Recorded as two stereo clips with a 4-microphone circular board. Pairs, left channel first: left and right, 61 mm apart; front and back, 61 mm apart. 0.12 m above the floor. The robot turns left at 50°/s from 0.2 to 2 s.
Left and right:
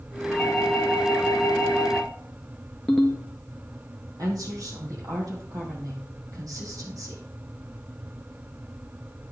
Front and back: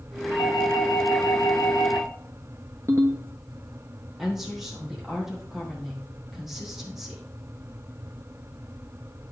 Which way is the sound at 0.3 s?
Straight ahead.